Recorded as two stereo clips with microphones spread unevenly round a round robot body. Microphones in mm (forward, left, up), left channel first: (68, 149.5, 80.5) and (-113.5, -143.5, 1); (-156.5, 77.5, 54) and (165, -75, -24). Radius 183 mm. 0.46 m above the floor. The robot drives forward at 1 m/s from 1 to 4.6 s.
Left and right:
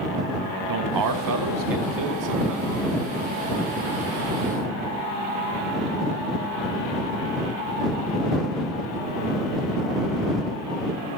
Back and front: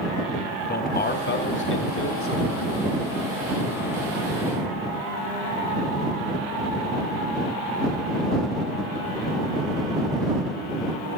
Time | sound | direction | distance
0.7 | a man speaking | 135° right | 3 m